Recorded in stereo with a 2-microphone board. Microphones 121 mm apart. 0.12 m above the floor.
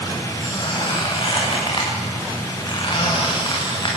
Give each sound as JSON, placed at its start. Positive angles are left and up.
{"t": 0.4, "sound": "a squeak", "side_deg": 40, "distance_m": 8.5}